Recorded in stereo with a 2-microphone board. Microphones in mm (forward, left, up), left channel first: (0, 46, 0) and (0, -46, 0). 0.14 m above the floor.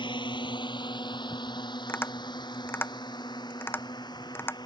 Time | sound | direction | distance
0.0 | a drone | 60° left (ahead or behind) | ?
1.9 | tapping | 25° left (ahead or behind) | ?